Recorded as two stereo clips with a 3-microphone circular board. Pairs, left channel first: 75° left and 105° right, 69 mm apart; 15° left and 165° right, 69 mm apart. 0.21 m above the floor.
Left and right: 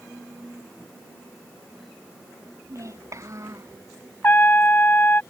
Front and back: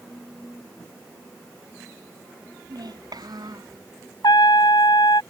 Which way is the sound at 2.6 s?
145° right.